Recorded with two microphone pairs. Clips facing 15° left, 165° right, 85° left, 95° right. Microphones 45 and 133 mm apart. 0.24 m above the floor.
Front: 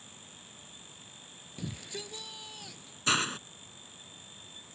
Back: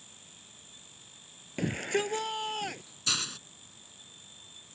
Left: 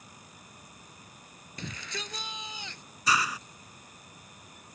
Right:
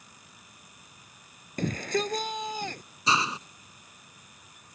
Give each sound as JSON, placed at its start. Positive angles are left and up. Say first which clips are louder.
{"t": 1.6, "sound": "a shout", "louder": "back 12 dB, right 13 dB", "azimuth_deg": -130}
{"t": 3.1, "sound": "a hiss", "louder": "front 6 dB, right 1 dB", "azimuth_deg": -35}